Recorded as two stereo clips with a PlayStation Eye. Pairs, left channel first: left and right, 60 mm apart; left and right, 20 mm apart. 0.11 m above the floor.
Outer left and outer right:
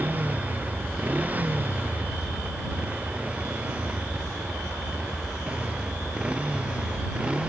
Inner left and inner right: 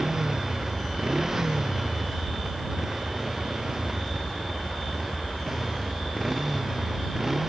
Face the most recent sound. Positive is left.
turn(degrees=-20)  # may be behind; listen again after turning